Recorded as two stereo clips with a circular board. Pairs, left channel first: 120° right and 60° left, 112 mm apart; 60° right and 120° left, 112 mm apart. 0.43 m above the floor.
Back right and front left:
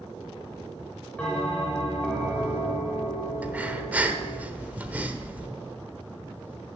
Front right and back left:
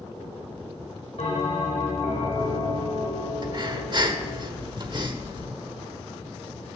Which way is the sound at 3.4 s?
130° left.